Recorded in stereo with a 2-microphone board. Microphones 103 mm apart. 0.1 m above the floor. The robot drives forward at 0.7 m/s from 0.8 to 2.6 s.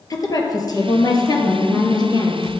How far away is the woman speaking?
About 2.5 m.